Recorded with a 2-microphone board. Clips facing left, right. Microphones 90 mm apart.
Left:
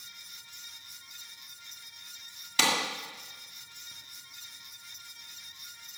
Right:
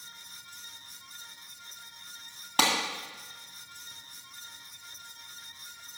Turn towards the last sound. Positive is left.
turn(degrees=-45)  # may be behind; listen again after turning